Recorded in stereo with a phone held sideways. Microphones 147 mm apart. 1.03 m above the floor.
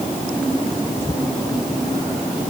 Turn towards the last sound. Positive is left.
No sound to turn to.